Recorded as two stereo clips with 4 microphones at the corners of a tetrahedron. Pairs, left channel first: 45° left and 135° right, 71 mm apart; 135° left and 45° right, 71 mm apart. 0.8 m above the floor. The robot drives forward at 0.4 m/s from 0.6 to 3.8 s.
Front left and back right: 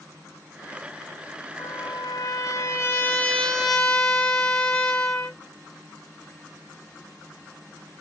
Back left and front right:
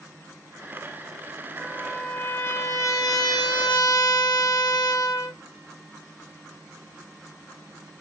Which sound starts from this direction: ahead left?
A trumpet, at 1.6 s.